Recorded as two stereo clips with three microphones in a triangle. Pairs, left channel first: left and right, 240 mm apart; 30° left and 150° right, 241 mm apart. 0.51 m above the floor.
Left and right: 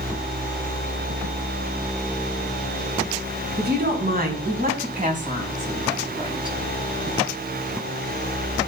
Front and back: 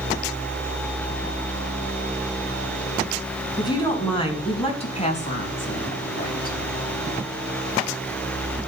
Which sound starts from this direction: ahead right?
A woman speaking, at 3.6 s.